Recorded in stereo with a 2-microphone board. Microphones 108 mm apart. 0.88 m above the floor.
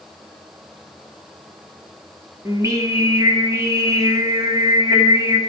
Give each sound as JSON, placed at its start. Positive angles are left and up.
{"t": 2.5, "sound": "singing", "side_deg": -30, "distance_m": 2.0}